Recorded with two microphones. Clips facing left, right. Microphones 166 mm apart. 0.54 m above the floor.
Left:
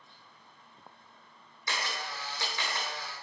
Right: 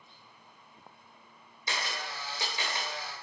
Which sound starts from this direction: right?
A camera shutter, at 1.7 s.